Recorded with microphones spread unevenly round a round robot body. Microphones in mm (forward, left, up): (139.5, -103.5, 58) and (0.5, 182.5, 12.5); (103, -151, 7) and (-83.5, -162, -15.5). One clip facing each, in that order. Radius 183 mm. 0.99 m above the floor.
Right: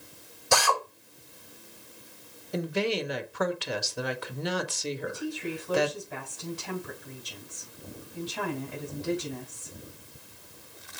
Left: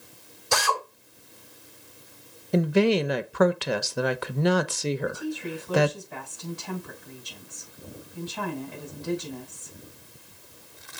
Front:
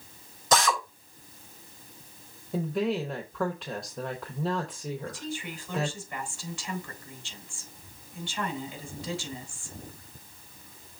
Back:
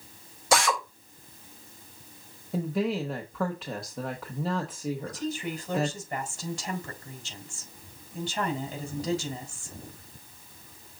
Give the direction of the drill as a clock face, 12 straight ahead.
3 o'clock.